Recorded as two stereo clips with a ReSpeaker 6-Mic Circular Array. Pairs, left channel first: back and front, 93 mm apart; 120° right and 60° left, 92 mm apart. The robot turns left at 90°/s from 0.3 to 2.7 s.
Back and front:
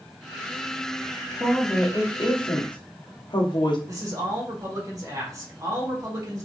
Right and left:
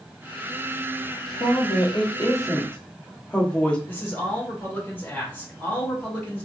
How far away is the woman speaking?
About 1.0 m.